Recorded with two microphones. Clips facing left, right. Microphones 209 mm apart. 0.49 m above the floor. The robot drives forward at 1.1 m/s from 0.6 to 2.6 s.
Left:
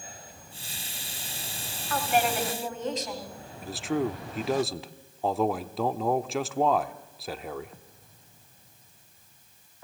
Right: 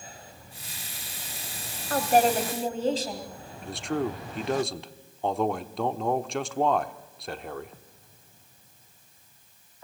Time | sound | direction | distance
1.9 | a woman speaking | 45° right (ahead or behind) | 2.0 m
3.6 | a man speaking | centre (ahead or behind) | 0.7 m